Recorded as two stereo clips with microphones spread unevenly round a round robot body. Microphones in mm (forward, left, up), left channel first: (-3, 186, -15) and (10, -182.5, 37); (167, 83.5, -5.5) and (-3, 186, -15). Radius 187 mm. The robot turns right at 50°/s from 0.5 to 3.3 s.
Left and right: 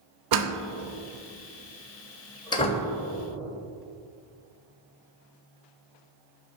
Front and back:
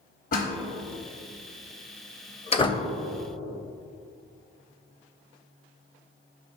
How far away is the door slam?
About 0.8 m.